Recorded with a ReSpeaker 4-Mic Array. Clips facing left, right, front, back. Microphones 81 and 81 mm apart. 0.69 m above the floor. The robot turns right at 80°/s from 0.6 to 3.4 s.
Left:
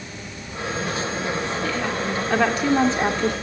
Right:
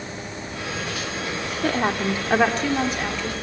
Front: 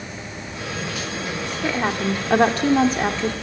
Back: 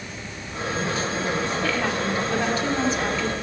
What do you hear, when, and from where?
1.6 s a woman speaking: 70° right, 2 m; by 3.3 s 65° left, 2 m